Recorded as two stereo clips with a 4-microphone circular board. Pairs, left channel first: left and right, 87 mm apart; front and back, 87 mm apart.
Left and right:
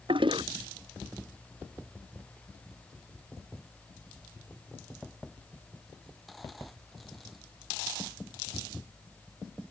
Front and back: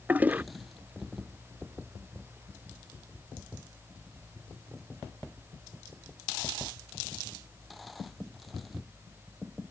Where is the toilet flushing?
110° right.